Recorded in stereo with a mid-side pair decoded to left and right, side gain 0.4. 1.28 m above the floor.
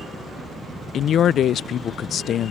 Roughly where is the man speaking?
Ahead left.